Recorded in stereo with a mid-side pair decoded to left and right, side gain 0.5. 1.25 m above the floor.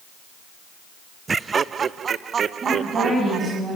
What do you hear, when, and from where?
1.3 s laughter: 30° right, 0.6 m; by 3.6 s 55° right, 1.7 m
2.6 s a woman speaking: 40° right, 9 m